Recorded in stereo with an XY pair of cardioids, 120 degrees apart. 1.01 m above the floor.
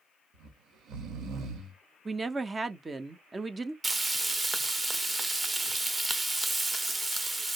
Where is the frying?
15° right, 0.7 m.